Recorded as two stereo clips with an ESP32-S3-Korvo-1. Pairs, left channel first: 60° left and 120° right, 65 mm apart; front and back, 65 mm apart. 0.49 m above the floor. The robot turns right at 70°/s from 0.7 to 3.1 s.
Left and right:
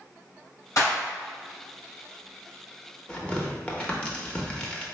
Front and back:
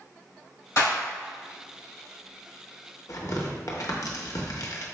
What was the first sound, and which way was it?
A clap, 30° left.